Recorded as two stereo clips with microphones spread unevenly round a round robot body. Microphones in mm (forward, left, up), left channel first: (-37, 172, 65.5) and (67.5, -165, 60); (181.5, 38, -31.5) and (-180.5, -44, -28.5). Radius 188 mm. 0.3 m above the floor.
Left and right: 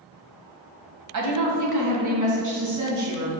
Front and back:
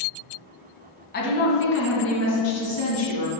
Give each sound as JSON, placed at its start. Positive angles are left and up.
{"t": 1.1, "sound": "a woman speaking", "azimuth_deg": -45, "distance_m": 2.0}